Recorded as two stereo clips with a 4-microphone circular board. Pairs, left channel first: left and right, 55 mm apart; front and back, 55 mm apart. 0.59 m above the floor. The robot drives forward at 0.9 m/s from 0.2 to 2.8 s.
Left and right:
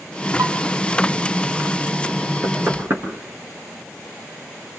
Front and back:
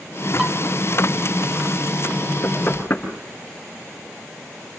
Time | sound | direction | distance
0.4 | dishes clattering | 100° right | 3.5 m
2.4 | knocking | 40° right | 5.5 m